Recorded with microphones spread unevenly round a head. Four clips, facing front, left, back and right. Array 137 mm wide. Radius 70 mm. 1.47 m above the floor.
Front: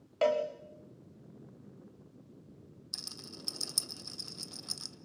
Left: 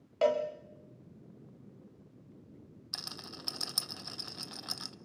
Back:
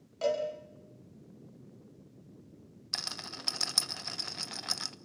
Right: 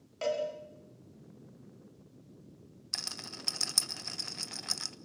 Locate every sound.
0.2 s a cowbell: 40° left, 2 m
2.9 s a rattle: 170° right, 0.8 m